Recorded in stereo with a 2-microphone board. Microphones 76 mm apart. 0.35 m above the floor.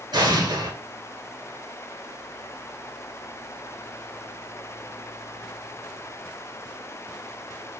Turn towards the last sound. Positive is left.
turn(degrees=-70)  # may be behind; listen again after turning